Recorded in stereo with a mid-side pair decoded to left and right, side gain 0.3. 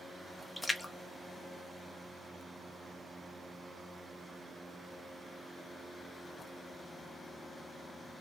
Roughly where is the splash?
Ahead.